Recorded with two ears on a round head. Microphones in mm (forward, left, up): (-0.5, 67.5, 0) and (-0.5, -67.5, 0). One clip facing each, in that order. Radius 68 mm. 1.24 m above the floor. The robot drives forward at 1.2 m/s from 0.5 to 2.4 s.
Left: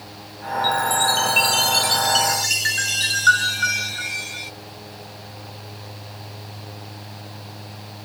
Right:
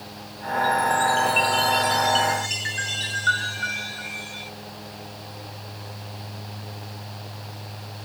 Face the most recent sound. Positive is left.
turn(degrees=70)  # may be behind; listen again after turning